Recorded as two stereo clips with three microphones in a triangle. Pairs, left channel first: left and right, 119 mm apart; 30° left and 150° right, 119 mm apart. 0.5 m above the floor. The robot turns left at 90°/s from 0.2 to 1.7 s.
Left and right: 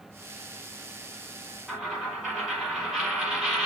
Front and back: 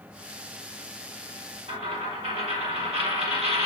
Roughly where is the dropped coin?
Behind.